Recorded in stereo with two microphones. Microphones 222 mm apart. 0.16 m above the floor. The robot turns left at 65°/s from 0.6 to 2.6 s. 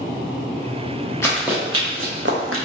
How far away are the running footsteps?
About 1.4 m.